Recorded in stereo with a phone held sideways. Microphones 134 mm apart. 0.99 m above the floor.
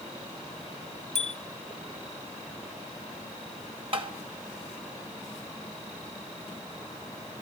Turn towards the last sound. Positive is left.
turn(degrees=-45)  # may be behind; listen again after turning